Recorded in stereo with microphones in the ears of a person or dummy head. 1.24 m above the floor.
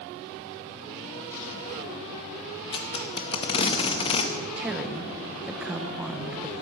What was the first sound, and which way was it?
Tape being pulled, 30° left (ahead or behind).